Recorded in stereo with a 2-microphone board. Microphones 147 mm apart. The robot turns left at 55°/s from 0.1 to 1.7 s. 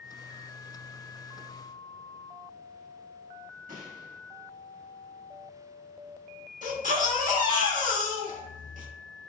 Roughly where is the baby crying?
Right.